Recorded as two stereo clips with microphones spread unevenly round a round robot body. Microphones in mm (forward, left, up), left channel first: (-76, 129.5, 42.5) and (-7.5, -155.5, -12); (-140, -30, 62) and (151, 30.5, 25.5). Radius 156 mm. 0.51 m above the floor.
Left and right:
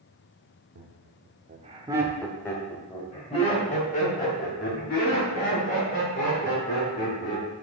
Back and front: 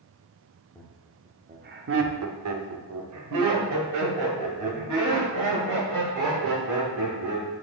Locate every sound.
0.8 s laughter: 80° right, 1.0 m; by 7.5 s 45° left, 5 m